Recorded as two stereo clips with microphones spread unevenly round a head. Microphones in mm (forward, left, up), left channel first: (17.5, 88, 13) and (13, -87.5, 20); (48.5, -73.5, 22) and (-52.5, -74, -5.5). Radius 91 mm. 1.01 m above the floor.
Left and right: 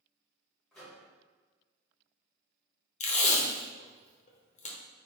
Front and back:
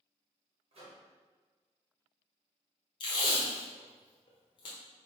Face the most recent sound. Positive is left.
turn(degrees=55)